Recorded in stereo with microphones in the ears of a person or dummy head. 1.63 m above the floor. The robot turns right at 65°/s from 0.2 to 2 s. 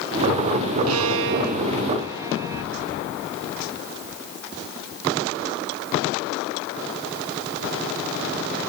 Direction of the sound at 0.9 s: 90° right.